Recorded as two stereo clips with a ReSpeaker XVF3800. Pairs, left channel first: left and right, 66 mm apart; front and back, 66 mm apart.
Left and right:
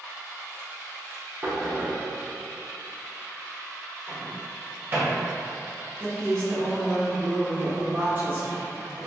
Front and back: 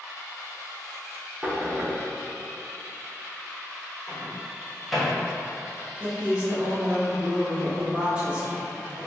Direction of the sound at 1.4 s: 125° right.